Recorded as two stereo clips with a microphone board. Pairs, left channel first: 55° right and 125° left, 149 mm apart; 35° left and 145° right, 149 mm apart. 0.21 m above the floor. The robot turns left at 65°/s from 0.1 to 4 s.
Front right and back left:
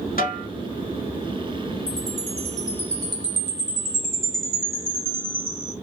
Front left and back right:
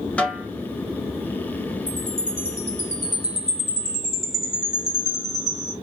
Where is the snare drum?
45° right, 1.2 m; by 0.5 s 65° right, 1.2 m.